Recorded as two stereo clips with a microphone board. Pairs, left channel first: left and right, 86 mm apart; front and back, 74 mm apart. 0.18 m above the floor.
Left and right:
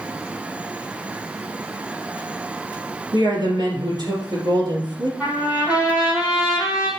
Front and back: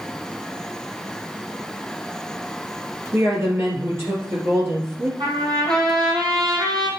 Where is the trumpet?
160° right, 4 m.